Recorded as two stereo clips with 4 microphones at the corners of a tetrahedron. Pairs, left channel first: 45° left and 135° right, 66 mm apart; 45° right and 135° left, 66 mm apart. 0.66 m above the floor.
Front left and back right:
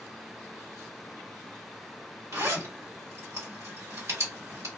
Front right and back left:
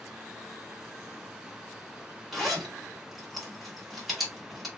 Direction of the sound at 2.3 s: 135° right.